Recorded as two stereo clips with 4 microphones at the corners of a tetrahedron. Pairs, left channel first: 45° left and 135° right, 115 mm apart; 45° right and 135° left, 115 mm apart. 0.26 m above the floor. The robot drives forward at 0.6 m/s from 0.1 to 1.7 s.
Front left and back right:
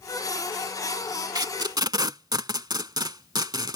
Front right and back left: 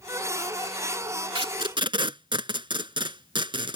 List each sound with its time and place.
1.4 s tape being pulled: 170° left; by 3.8 s 175° left